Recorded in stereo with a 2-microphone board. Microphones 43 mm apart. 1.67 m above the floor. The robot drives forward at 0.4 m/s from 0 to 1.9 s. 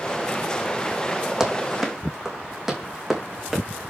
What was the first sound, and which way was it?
Running footsteps, 10° right (ahead or behind).